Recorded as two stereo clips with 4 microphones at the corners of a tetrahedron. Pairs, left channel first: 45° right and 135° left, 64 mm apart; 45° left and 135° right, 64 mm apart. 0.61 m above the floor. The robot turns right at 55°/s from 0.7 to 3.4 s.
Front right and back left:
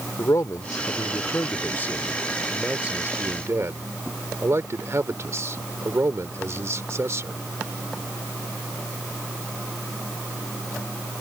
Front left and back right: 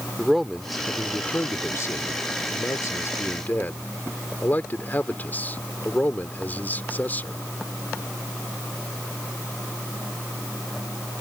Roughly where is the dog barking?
No dog barking in this recording.